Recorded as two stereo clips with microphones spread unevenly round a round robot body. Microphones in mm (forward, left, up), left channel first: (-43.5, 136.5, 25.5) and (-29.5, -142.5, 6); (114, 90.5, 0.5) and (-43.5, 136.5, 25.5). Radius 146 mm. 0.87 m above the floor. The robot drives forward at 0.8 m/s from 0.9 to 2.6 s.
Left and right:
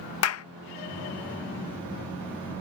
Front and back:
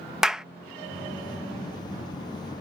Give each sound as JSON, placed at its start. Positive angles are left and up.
{"t": 0.2, "sound": "a clap", "azimuth_deg": 70}